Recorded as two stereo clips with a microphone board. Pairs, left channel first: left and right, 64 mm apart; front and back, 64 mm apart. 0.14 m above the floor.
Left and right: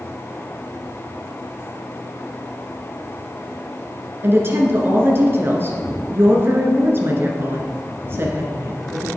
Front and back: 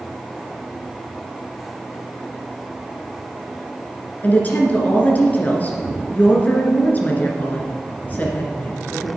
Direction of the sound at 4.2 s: 55° right.